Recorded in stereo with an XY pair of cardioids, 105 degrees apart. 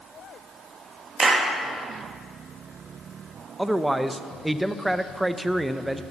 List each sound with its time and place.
1.2 s a clap: 30° right, 1.5 m
3.6 s a man speaking: 10° right, 0.6 m